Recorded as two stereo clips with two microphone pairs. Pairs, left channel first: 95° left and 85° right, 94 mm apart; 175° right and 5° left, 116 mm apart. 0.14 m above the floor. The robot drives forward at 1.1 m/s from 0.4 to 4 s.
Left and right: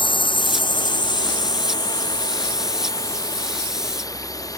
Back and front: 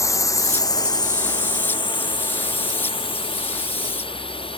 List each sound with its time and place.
0.0 s a drone: 125° left; by 4.6 s 145° left